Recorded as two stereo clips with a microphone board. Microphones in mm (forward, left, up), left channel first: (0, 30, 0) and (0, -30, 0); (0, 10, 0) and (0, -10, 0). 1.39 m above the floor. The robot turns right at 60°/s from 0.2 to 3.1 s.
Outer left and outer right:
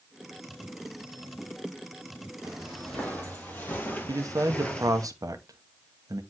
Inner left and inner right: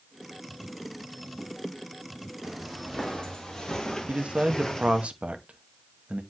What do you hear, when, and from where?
2.4 s footsteps: 10° right (ahead or behind), 3.5 m; by 5.1 s 10° left (ahead or behind), 1.7 m
4.1 s a man speaking: 75° right (ahead or behind), 0.9 m